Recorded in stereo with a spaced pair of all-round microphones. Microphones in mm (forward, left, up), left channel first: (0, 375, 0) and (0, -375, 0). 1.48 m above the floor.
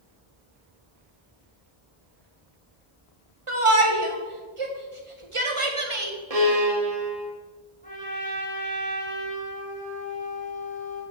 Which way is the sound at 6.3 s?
50° right (ahead or behind).